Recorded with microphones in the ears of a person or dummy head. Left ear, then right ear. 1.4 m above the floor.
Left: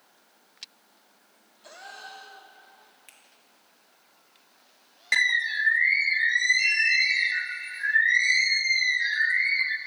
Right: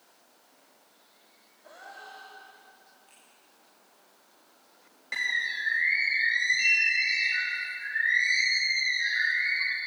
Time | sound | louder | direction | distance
1.6 | a gasp | left 3 dB | 75° left (ahead or behind) | 1.9 m
3.1 | a finger snap | left 5 dB | 65° left (ahead or behind) | 1.1 m
5.1 | a bird | left 6 dB | 50° left (ahead or behind) | 0.7 m